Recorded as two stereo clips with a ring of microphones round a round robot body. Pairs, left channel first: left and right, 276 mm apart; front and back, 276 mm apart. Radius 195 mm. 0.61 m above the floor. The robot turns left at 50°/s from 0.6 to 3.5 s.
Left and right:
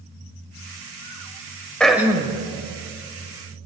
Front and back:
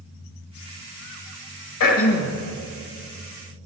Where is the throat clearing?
5° left, 1.5 m; by 2.4 s 25° right, 1.5 m.